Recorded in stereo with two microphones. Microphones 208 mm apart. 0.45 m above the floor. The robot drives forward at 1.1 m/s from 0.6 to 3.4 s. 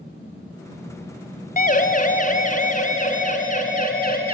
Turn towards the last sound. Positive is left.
turn(degrees=45)  # may be behind; listen again after turning